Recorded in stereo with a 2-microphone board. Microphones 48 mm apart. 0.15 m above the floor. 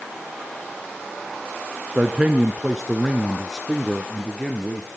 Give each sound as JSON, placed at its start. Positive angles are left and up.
{"t": 1.9, "sound": "a man speaking", "side_deg": -25, "distance_m": 1.4}